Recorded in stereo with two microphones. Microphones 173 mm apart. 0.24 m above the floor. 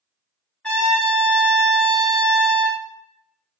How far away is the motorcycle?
I don't hear a motorcycle.